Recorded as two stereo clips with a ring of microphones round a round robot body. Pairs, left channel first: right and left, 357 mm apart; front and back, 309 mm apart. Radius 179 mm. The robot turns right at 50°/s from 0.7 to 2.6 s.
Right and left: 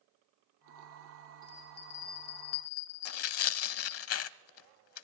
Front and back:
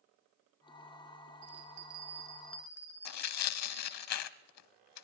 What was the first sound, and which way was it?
A bell, 140° right.